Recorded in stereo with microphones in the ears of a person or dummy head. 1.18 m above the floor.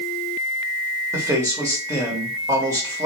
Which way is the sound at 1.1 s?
15° right (ahead or behind).